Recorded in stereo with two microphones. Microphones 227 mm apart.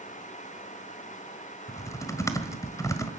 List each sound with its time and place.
1.7 s typing on a keyboard: 15° left (ahead or behind), 1.8 m